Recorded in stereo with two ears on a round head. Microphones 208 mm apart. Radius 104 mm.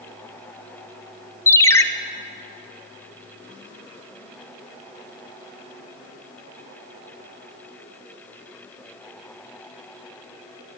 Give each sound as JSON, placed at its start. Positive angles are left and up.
{"t": 1.5, "sound": "a ringtone", "side_deg": 10, "distance_m": 0.5}